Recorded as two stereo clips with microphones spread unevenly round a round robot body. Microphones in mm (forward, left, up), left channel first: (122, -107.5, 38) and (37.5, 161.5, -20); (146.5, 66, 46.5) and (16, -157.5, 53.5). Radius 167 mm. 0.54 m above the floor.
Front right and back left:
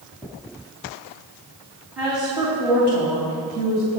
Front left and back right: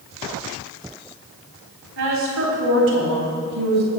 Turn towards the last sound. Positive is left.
turn(degrees=180)